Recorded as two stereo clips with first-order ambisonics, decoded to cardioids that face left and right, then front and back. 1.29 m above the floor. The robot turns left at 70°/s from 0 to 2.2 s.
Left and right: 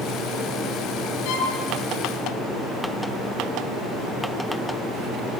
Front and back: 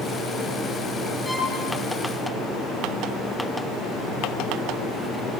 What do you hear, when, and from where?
1.2 s a violin: 90° left, 8 m; by 1.6 s 70° left, 8 m